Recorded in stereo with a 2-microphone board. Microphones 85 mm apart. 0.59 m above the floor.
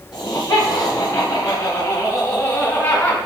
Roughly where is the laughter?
Left.